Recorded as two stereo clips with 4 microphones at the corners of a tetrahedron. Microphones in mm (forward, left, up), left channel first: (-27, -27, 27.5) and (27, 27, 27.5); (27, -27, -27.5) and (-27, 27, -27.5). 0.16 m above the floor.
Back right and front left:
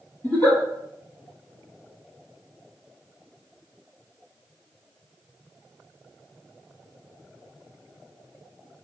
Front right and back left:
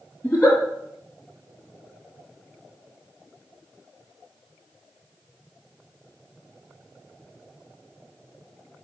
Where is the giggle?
100° right, 1.3 m.